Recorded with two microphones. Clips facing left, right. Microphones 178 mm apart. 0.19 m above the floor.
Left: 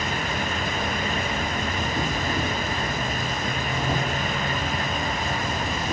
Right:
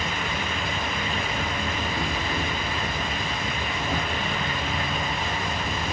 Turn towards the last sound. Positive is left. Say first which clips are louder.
# left 2 dB
turn(degrees=35)  # may be behind; listen again after turning